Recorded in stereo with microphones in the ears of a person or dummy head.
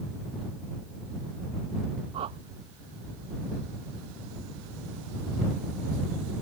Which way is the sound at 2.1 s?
30° right (ahead or behind).